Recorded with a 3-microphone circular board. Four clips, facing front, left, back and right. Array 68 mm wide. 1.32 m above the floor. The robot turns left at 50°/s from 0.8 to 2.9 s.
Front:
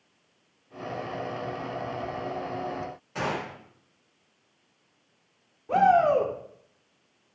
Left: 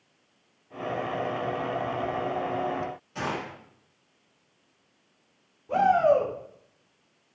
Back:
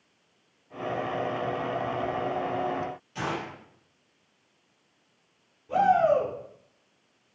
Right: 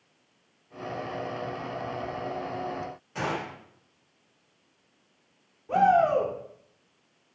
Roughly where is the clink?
I don't hear a clink.